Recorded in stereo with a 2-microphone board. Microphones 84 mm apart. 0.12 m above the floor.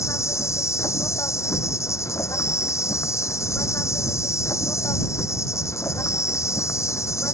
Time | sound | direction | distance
0.0 | an insect | 35° left (ahead or behind) | ?